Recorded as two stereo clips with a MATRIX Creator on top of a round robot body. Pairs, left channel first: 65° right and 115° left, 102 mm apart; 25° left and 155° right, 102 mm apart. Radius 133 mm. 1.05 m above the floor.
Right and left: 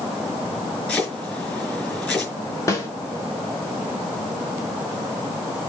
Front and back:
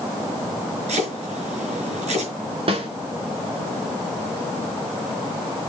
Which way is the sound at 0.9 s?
145° right.